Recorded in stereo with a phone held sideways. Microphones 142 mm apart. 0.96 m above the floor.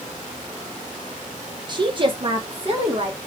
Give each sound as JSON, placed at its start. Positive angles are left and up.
{"t": 1.7, "sound": "a woman speaking", "side_deg": -30, "distance_m": 0.9}